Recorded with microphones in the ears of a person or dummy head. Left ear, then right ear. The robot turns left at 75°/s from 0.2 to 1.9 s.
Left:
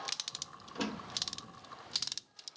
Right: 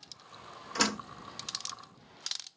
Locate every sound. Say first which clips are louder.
0.8 s a door slam: right 9 dB; 65° right (ahead or behind); by 1.0 s 45° right (ahead or behind)